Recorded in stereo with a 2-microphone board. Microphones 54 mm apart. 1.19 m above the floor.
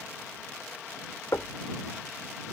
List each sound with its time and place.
1.3 s knocking: 75° left (ahead or behind)